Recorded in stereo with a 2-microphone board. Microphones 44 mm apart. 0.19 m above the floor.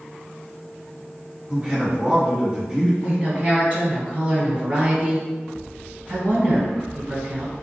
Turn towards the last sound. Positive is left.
turn(degrees=-30)  # may be behind; listen again after turning